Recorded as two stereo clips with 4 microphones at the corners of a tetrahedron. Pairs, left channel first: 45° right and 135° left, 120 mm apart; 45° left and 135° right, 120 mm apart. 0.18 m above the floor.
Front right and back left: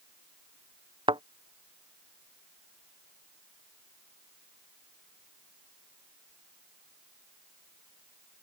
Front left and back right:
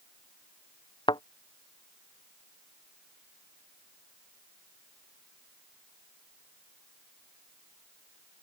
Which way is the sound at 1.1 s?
90° left.